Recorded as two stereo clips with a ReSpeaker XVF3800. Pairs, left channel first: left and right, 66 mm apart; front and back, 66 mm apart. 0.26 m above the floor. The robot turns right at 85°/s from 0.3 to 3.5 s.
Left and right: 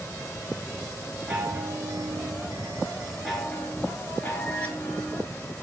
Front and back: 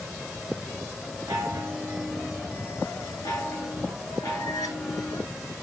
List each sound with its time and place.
1.3 s a chime: 170° right, 1.5 m; by 5.2 s 20° left, 1.5 m